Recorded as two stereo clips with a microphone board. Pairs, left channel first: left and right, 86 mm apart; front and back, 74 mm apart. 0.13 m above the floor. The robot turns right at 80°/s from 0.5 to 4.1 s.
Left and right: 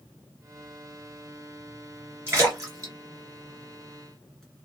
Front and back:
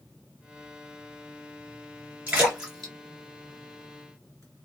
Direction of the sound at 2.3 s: 135° right.